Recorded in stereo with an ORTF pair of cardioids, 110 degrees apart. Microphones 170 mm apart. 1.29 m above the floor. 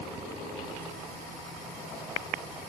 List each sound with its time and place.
Only background noise.